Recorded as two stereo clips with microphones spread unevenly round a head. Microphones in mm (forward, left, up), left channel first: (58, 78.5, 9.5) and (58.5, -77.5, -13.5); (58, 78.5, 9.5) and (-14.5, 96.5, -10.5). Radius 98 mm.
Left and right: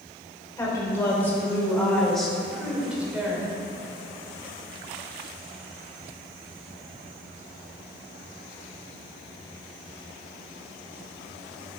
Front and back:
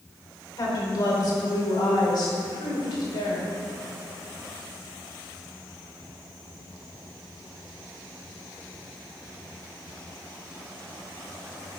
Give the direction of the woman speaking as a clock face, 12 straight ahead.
11 o'clock.